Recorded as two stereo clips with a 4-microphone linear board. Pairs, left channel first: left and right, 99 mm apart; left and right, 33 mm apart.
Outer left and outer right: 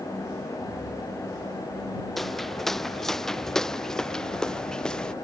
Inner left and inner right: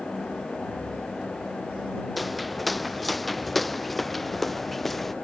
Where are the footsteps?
Centre (ahead or behind); by 5.1 s 10° left (ahead or behind).